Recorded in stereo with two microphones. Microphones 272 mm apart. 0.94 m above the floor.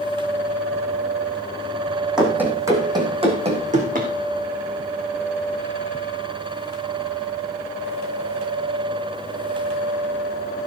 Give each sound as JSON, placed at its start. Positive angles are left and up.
{"t": 2.2, "sound": "running footsteps", "side_deg": -5, "distance_m": 3.5}